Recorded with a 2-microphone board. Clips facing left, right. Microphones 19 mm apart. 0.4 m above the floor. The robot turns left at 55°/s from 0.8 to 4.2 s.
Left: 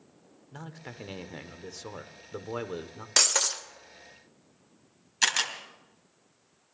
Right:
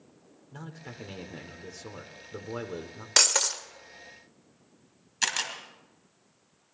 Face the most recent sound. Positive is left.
turn(degrees=5)  # may be behind; listen again after turning